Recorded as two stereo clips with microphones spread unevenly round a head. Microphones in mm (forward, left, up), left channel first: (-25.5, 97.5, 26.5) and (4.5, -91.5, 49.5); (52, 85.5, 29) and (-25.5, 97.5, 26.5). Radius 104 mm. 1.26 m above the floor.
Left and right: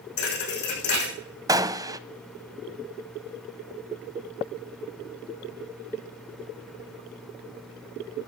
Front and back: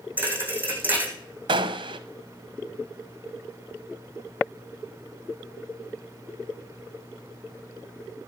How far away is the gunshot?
About 0.6 m.